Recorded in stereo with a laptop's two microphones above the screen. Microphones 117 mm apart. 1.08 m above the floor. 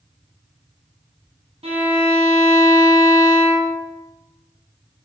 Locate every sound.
1.6 s a violin: 55° right (ahead or behind), 1.8 m